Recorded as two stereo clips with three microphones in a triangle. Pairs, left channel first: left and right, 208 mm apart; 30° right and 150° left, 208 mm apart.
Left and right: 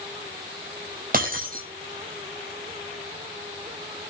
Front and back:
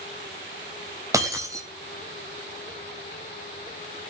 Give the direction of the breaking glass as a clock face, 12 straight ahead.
4 o'clock.